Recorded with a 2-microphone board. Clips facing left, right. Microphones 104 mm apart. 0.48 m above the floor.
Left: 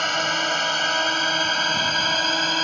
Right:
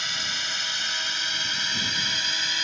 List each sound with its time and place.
0.0 s a drone: 55° left (ahead or behind); by 2.6 s 50° left (ahead or behind)